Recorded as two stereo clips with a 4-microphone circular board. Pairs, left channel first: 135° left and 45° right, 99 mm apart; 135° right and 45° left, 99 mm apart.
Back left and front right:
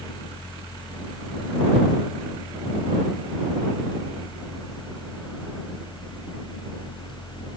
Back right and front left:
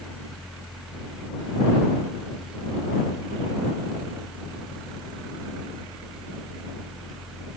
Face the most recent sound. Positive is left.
No sound to turn to.